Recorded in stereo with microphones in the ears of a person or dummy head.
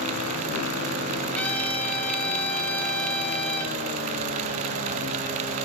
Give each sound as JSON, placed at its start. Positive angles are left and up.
{"t": 1.4, "sound": "a trumpet", "side_deg": 10, "distance_m": 1.5}